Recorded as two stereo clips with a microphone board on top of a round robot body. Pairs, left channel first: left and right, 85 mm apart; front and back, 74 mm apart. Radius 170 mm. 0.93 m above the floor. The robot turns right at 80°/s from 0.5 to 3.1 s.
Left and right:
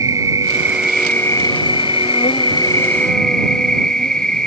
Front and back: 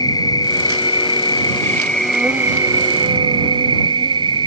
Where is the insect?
35° right; by 4.5 s 170° left.